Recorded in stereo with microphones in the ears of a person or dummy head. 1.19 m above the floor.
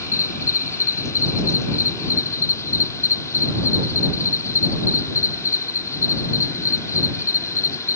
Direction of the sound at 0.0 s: 15° left (ahead or behind).